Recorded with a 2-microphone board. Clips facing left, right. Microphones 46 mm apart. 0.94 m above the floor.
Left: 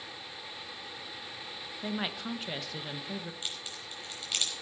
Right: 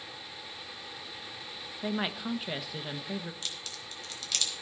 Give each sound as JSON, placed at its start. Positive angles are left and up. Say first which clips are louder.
{"t": 1.8, "sound": "a woman speaking", "louder": "right 3 dB", "side_deg": -10, "distance_m": 0.8}
{"t": 3.4, "sound": "a crack", "louder": "even", "side_deg": 25, "distance_m": 4.5}